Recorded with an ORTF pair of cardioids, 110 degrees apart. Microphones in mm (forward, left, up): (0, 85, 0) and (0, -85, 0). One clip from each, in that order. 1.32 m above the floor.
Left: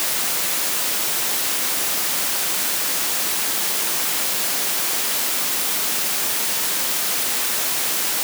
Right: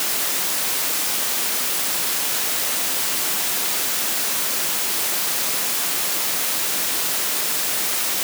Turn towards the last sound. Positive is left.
No sound to turn to.